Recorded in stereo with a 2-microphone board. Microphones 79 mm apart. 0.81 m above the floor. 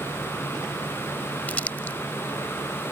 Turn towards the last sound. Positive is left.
turn(degrees=20)  # may be behind; listen again after turning